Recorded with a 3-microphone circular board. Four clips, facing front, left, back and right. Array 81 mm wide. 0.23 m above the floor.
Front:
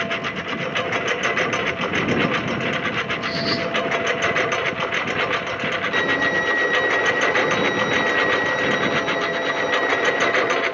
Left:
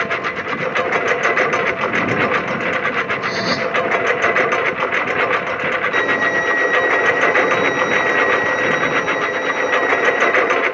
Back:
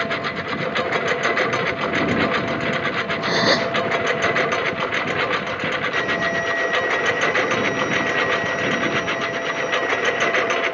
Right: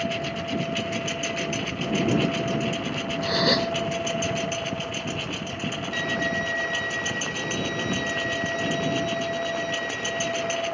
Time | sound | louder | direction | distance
0.0 | a lawn mower | left 7 dB, back 2 dB | 95° left | ?
3.2 | a gasp | left 4 dB, back 8 dB | 175° left | ?
5.9 | a violin | left 7 dB, front 1 dB | 70° left | ?